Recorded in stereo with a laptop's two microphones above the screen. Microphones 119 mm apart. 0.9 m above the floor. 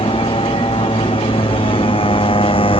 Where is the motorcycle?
50° left (ahead or behind).